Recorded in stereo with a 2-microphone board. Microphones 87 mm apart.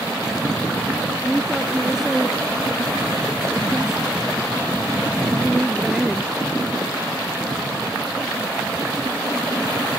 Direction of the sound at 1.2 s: Centre (ahead or behind).